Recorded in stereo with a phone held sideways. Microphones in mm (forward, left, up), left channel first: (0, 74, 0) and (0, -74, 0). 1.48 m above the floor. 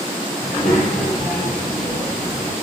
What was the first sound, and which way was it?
A child speaking, 80° left.